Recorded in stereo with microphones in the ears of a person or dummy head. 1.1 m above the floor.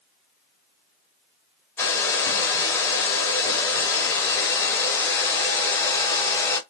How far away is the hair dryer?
About 0.8 m.